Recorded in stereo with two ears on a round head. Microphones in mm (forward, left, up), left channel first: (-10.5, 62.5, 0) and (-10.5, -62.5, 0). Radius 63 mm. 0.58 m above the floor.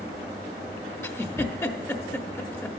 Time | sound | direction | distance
1.0 | a giggle | 15° left (ahead or behind) | 0.6 m